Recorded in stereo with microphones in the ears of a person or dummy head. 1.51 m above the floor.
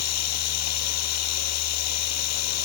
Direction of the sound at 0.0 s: 85° left.